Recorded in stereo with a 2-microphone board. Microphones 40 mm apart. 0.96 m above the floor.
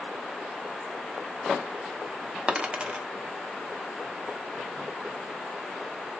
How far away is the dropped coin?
About 0.6 m.